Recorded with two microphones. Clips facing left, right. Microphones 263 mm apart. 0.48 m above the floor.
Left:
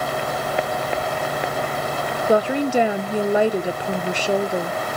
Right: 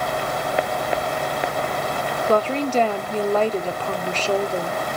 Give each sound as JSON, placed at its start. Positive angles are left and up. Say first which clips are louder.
{"t": 2.3, "sound": "a woman speaking", "louder": "left 2 dB", "side_deg": 10, "distance_m": 0.7}